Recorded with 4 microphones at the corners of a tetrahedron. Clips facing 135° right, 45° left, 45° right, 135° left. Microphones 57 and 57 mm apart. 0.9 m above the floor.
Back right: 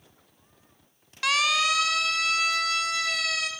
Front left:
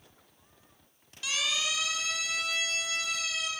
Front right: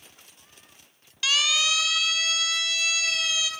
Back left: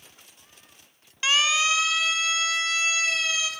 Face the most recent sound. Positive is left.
turn(degrees=-165)